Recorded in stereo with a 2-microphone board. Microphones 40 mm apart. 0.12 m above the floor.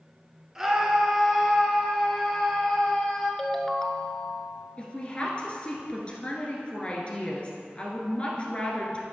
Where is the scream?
10° right (ahead or behind), 1.5 m; by 3.3 s 15° left (ahead or behind), 2.5 m.